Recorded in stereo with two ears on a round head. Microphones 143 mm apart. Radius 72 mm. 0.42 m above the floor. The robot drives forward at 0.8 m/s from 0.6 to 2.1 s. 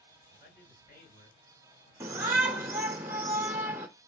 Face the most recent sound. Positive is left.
turn(degrees=-15)  # may be behind; listen again after turning